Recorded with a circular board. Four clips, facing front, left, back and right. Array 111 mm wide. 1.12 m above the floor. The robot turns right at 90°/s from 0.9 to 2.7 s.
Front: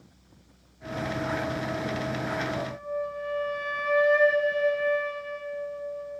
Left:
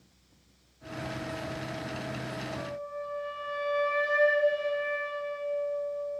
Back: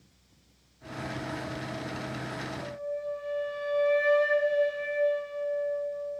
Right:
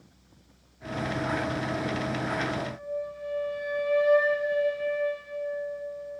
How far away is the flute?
About 1.0 m.